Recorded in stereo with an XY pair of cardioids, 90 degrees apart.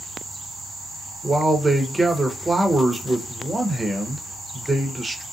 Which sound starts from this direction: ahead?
A man speaking, at 1.2 s.